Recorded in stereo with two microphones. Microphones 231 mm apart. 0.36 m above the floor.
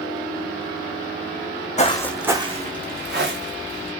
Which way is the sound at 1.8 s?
30° left (ahead or behind).